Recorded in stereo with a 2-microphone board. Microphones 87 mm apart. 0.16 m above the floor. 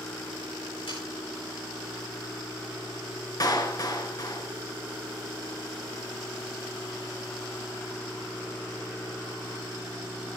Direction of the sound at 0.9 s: 85° left.